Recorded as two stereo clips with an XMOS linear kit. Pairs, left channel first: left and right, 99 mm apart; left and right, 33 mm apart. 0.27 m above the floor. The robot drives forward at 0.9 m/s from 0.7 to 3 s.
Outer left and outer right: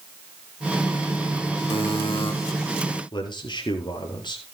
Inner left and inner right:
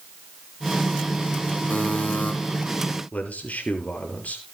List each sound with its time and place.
1.7 s a buzzer: 55° left (ahead or behind), 4 m; by 2.3 s 60° left (ahead or behind), 3.5 m
3.1 s a man speaking: 50° left (ahead or behind), 5.5 m